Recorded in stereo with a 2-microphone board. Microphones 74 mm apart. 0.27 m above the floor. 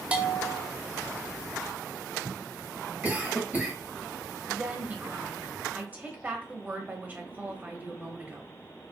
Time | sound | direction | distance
0.1 | a bell | 20° right (ahead or behind) | 0.7 m
3.0 | a cough | 20° right (ahead or behind) | 1.3 m
4.5 | a woman speaking | 25° right (ahead or behind) | 0.9 m